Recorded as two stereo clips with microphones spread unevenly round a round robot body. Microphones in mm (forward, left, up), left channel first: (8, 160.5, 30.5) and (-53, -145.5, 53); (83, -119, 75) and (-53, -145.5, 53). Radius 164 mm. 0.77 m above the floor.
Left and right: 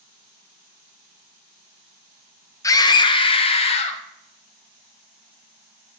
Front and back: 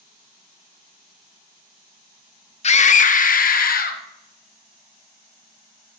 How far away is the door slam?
No door slam in this recording.